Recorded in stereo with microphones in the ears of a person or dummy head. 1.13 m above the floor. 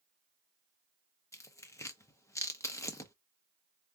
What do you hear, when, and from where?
1.3 s tearing paper: 15° left (ahead or behind), 0.6 m